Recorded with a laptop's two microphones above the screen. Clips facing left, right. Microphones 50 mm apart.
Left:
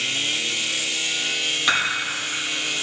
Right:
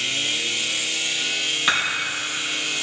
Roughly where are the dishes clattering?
Centre.